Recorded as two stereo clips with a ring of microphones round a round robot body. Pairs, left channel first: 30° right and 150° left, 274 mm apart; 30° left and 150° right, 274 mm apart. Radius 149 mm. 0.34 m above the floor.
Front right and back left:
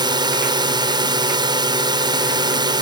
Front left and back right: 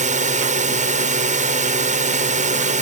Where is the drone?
155° right.